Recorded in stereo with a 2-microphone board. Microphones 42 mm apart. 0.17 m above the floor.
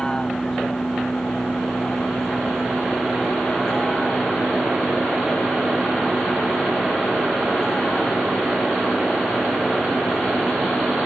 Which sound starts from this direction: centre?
A vehicle, at 0.0 s.